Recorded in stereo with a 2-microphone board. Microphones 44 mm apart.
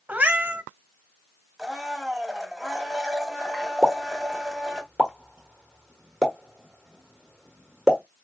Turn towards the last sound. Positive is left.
turn(degrees=-10)  # may be behind; listen again after turning